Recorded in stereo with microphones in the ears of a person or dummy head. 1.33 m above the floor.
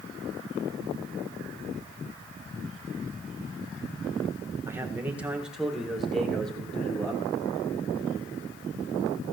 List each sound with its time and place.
4.7 s a man speaking: 15° right (ahead or behind), 1.6 m; by 7.2 s 10° left (ahead or behind), 2.5 m